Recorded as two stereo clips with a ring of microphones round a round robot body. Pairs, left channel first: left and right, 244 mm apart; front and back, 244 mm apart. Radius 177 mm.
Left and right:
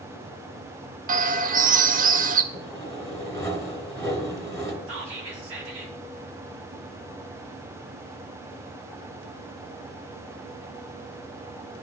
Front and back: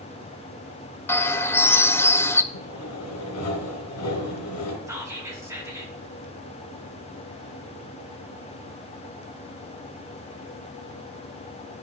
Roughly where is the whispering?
Right.